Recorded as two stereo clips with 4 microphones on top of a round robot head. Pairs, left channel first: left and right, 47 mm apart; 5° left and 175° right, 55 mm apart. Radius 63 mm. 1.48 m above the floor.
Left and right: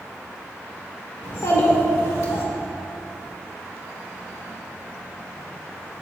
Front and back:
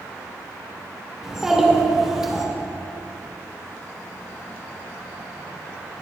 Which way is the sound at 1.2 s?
100° left.